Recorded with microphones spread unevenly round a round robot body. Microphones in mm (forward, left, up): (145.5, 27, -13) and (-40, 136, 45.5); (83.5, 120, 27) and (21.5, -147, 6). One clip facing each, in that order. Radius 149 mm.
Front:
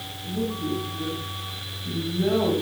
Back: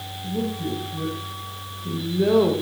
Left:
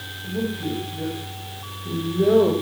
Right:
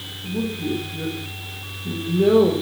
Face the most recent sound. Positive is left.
turn(degrees=175)